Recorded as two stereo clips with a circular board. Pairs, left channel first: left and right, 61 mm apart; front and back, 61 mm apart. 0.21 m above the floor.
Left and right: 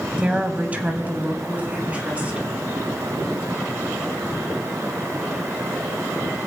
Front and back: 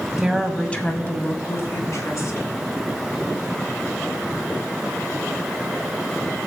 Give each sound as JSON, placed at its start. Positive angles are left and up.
{"t": 0.2, "sound": "a woman speaking", "azimuth_deg": -125, "distance_m": 1.2}